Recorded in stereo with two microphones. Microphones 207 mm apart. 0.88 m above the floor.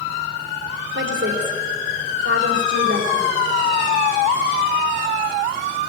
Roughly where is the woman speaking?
Right.